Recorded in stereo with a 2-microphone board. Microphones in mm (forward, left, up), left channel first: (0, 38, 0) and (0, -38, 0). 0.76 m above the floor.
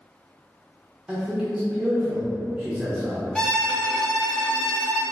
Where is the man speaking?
10° right (ahead or behind), 0.9 m.